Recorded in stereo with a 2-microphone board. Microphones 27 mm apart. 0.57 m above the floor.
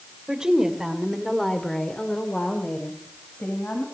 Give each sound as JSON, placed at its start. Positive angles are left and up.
{"t": 0.3, "sound": "a woman speaking", "side_deg": -30, "distance_m": 2.5}